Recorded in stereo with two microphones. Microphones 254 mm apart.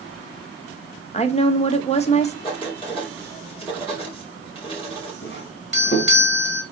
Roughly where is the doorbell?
Left.